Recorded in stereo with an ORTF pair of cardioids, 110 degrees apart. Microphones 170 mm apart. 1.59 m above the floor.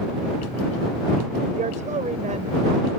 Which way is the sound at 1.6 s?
45° right.